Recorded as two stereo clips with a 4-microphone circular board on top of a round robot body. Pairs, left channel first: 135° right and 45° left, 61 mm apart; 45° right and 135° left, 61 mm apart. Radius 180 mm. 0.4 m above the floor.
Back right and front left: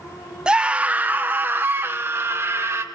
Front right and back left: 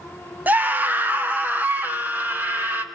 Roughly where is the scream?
Left.